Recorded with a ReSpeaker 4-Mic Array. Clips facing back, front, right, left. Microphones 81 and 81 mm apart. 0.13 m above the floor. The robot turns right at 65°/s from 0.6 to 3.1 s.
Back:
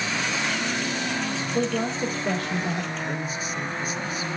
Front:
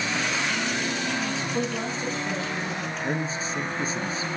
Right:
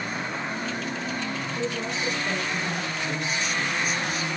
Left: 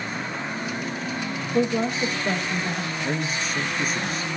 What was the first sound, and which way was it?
A woman speaking, 95° left.